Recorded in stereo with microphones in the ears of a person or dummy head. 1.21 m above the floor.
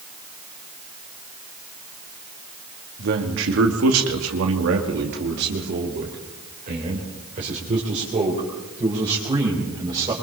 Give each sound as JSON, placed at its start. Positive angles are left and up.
{"t": 3.0, "sound": "a man speaking", "side_deg": -60, "distance_m": 2.0}